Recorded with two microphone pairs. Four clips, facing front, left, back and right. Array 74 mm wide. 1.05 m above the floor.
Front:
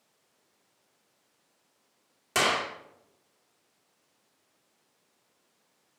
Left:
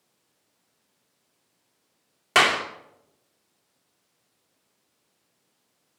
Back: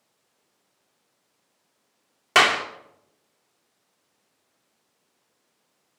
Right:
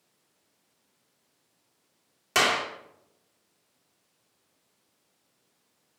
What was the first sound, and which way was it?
A clap, 150° left.